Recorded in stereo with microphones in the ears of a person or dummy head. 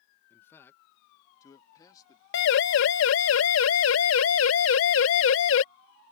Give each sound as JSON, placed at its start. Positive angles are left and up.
{"t": 0.3, "sound": "a man speaking", "side_deg": 15}
{"t": 2.3, "sound": "a siren", "side_deg": 65}